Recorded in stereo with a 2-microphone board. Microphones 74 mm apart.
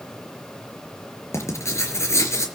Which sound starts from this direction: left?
Writing, at 1.3 s.